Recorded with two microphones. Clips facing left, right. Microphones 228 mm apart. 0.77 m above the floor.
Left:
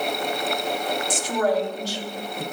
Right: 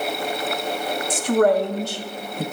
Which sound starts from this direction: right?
A man speaking, at 1.1 s.